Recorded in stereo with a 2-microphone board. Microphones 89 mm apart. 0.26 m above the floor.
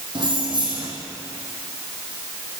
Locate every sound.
0.1 s keys jangling: 60° right (ahead or behind), 6.5 m